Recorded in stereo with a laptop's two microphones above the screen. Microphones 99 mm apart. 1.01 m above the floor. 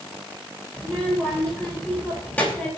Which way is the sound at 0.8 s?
15° left (ahead or behind).